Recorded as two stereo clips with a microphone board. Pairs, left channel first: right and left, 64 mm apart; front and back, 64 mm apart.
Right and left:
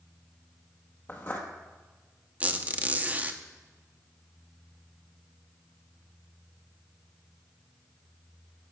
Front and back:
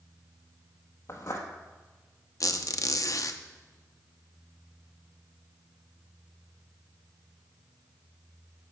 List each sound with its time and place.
1.1 s footsteps: 40° right, 1.7 m
2.4 s a squeak: 30° left, 0.8 m